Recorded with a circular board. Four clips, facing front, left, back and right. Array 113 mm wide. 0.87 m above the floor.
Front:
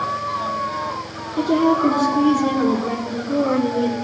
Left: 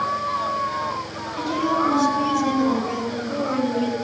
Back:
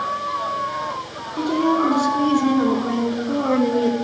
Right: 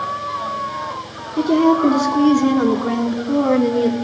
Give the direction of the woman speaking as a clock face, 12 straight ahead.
3 o'clock.